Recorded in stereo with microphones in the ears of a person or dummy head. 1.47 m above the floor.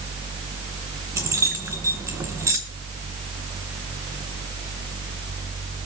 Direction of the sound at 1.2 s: 10° right (ahead or behind).